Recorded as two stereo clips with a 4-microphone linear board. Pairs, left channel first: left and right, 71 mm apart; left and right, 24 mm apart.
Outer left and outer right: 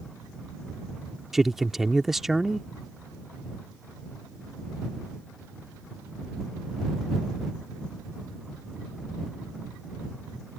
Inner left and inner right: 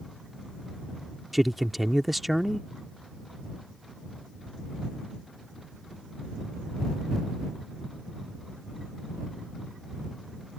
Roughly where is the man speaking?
Centre.